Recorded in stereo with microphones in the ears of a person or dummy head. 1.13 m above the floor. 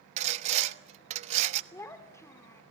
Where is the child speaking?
15° left (ahead or behind), 1.7 m.